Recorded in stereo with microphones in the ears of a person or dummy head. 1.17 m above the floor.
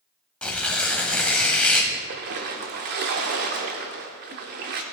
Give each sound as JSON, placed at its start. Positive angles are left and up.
{"t": 0.4, "sound": "tearing paper", "side_deg": 10, "distance_m": 1.2}
{"t": 1.9, "sound": "a splash", "side_deg": -45, "distance_m": 1.0}